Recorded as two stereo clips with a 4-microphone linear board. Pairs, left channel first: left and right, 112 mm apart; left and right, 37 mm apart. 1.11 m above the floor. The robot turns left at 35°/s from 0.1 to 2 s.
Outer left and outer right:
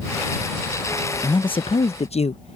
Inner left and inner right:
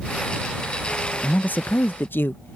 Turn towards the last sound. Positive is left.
turn(degrees=70)  # may be behind; listen again after turning